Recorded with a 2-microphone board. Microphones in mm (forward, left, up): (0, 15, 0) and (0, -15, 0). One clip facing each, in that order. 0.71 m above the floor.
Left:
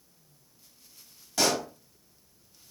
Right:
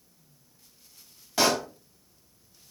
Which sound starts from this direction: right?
A pop, at 1.4 s.